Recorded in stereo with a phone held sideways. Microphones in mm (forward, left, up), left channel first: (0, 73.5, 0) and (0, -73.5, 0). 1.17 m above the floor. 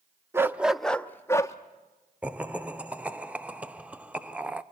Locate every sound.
0.3 s a dog barking: 20° right (ahead or behind), 0.6 m; by 1.6 s 20° left (ahead or behind), 0.8 m
2.2 s laughter: 10° right (ahead or behind), 0.5 m